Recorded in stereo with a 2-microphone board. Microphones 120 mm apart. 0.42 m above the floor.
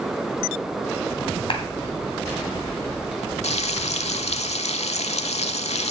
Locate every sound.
1.5 s a clap: 50° left (ahead or behind), 2.0 m
3.4 s frying: 65° left (ahead or behind), 0.6 m